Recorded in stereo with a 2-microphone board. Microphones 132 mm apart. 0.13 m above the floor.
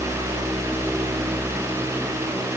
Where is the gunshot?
I don't hear a gunshot.